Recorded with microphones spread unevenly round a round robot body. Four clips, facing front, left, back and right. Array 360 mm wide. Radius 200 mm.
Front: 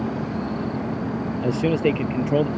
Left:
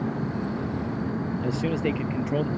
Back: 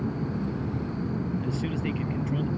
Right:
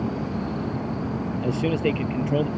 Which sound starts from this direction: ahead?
A man speaking, at 1.4 s.